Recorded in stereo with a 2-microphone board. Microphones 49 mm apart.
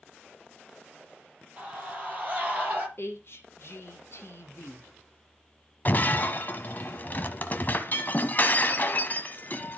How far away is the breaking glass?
About 1.0 m.